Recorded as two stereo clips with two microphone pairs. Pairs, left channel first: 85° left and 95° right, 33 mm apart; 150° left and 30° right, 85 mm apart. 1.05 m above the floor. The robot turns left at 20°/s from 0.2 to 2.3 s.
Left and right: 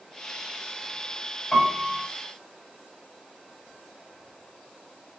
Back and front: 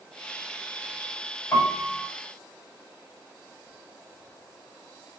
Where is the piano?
125° left, 0.6 m; by 2.0 s 115° left, 0.6 m.